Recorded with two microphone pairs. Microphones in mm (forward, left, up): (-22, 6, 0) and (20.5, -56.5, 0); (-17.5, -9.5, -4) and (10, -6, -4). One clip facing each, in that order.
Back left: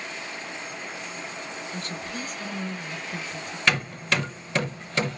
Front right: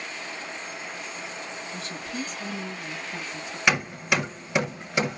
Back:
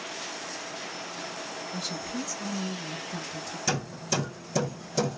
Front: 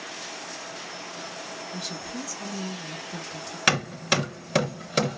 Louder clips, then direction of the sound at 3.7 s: Front right 1 dB, front 8 dB; 20° left.